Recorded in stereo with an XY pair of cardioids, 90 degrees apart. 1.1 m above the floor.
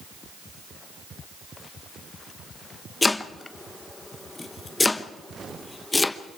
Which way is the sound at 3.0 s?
25° left.